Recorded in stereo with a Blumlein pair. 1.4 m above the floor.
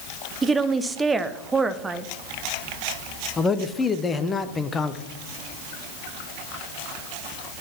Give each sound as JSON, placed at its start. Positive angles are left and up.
{"t": 0.4, "sound": "a woman speaking", "azimuth_deg": -10, "distance_m": 0.6}
{"t": 3.4, "sound": "a man speaking", "azimuth_deg": 15, "distance_m": 0.6}